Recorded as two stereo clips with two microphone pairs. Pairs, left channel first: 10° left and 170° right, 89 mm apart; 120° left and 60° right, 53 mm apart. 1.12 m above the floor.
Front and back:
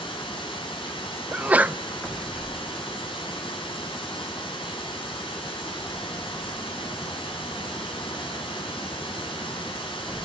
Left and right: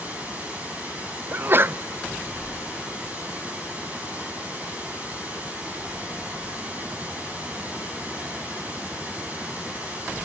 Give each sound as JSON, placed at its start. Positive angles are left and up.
{"t": 0.0, "sound": "running water", "azimuth_deg": -5, "distance_m": 8.5}
{"t": 1.3, "sound": "a sneeze", "azimuth_deg": -100, "distance_m": 0.5}